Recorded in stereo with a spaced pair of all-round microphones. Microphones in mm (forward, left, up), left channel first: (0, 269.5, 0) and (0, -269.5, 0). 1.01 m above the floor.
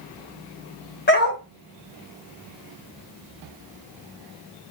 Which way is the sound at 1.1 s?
20° left (ahead or behind).